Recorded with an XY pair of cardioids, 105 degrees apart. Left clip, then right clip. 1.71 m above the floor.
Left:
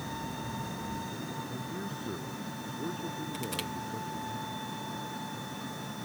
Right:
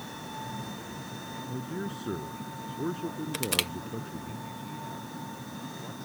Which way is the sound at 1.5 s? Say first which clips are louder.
Right 2 dB; 40° right.